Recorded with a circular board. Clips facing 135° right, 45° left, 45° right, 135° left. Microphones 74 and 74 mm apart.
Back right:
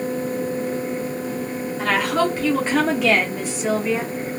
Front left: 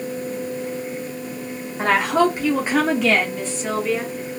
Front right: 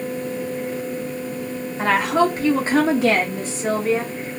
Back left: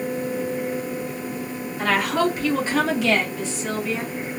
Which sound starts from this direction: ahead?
A woman speaking, at 1.8 s.